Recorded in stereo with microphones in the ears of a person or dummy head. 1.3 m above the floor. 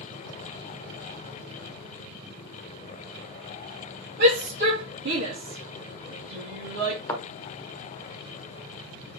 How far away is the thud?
About 1.7 m.